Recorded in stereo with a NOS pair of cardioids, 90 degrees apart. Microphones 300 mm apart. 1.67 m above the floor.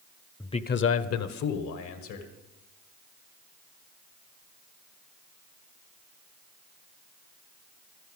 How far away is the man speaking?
About 0.7 m.